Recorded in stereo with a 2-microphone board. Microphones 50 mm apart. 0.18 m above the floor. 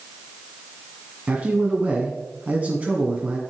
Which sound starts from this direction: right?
A man speaking, at 1.3 s.